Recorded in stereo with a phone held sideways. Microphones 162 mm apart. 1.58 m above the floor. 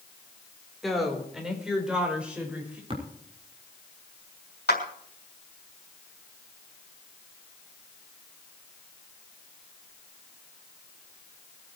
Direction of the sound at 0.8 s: Centre (ahead or behind).